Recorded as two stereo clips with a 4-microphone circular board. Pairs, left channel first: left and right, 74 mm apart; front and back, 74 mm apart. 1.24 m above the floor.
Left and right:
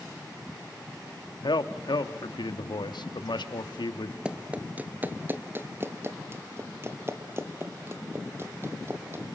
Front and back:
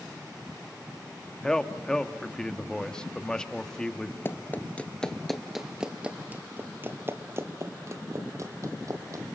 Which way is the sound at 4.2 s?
25° right.